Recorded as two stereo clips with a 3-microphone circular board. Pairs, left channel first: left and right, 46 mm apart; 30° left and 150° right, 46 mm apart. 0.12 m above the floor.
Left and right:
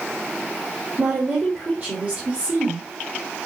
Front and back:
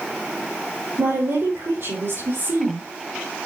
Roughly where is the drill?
I don't hear a drill.